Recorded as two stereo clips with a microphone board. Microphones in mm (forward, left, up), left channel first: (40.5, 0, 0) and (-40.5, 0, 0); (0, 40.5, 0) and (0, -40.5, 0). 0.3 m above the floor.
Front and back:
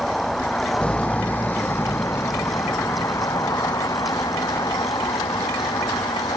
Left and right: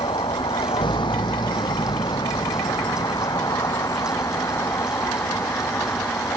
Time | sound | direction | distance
0.0 | a vehicle | 85° left | ?